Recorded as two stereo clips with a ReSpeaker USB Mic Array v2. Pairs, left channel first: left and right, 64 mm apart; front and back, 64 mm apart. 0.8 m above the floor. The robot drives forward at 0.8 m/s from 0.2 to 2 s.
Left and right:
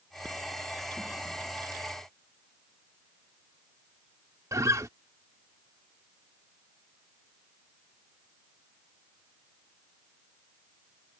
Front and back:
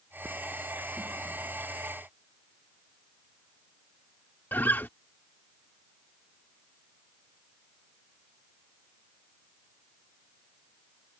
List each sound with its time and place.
4.5 s a guitar: 60° right